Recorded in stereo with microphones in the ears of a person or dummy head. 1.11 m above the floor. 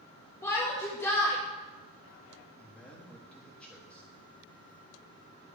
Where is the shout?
15° left (ahead or behind), 1.4 m.